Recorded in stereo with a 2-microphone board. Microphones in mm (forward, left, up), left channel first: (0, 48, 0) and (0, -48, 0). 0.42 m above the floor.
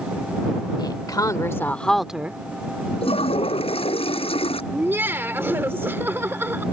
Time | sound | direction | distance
0.8 | a woman speaking | 50° left (ahead or behind) | ?
3.0 | a toilet flushing | 85° left | ?
4.7 | laughter | 25° right (ahead or behind) | ?